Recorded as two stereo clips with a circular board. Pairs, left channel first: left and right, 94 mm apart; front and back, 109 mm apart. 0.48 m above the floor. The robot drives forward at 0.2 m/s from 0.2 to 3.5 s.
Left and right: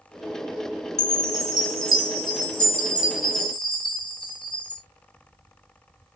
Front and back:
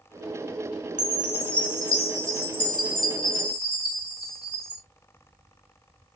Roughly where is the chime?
Ahead left.